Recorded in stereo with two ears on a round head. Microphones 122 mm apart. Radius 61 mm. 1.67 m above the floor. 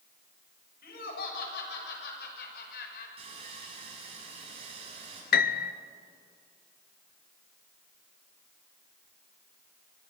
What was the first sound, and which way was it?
Laughter, 80° left.